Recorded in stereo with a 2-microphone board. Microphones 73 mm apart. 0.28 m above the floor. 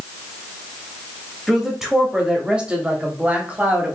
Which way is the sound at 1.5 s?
5° right (ahead or behind).